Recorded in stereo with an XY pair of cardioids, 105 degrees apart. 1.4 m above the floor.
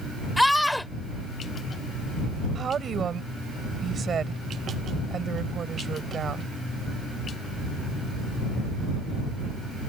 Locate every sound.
0.4 s a scream: 10° left
2.5 s a woman speaking: 45° right